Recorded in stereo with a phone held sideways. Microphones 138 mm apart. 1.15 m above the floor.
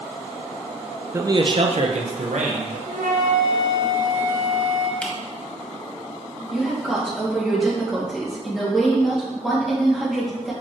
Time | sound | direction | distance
1.1 | a man speaking | 20° right (ahead or behind) | 0.5 m
2.9 | a flute | 65° right (ahead or behind) | 1.0 m
5.0 | a camera shutter | 10° left (ahead or behind) | 1.3 m
6.5 | a woman speaking | centre (ahead or behind) | 2 m